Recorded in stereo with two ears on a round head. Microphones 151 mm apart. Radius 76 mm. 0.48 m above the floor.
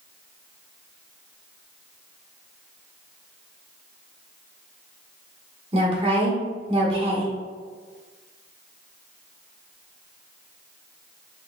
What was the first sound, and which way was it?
A woman speaking, 30° right (ahead or behind).